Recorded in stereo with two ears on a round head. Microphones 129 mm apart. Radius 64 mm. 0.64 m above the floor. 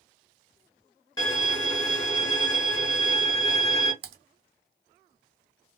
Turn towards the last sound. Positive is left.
turn(degrees=-70)  # may be behind; listen again after turning